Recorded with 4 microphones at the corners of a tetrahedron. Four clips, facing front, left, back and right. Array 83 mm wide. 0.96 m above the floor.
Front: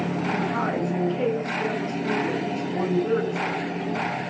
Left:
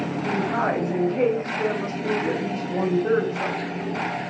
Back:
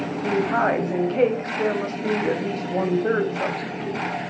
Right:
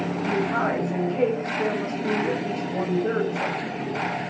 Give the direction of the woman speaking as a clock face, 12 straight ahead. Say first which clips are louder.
Even, back 8 dB; 6 o'clock.